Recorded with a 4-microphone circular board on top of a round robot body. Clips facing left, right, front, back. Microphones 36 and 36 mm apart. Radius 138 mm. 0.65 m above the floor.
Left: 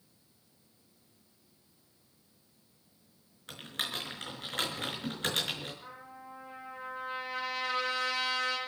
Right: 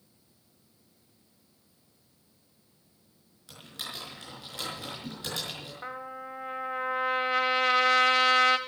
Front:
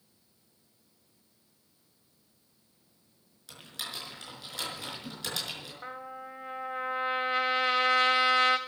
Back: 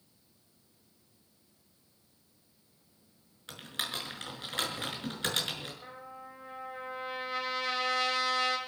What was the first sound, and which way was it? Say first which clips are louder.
Typing on a keyboard: left 4 dB, back 3 dB; 130° left.